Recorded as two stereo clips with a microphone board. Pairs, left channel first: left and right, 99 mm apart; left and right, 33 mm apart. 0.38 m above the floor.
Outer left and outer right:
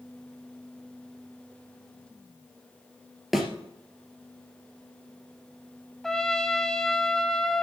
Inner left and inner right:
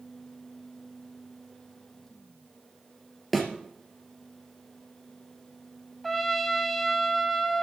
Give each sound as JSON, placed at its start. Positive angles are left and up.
{"t": 3.3, "sound": "a thud", "side_deg": 0, "distance_m": 2.5}
{"t": 6.0, "sound": "a trumpet", "side_deg": 5, "distance_m": 1.0}